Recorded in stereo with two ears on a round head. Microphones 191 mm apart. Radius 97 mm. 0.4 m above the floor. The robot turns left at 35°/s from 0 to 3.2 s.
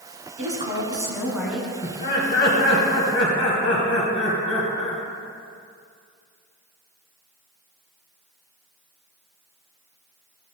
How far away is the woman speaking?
About 3 m.